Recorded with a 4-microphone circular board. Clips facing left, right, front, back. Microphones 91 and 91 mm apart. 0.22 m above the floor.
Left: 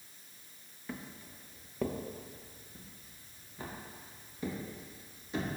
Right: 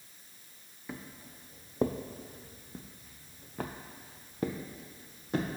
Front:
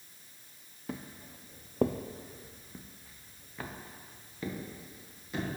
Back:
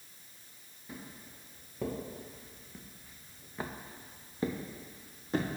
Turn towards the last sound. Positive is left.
turn(degrees=-130)